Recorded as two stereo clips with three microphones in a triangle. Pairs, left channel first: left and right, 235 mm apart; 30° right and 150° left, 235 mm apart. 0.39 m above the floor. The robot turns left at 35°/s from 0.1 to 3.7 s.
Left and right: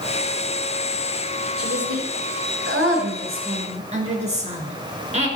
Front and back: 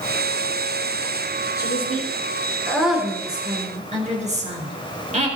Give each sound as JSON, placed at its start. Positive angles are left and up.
{"t": 1.6, "sound": "a woman speaking", "azimuth_deg": -75, "distance_m": 4.5}